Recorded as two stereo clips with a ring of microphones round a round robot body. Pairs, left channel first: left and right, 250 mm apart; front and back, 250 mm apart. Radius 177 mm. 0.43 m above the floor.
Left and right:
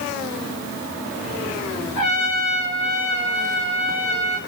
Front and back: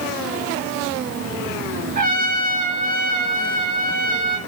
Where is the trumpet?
125° left, 5 m.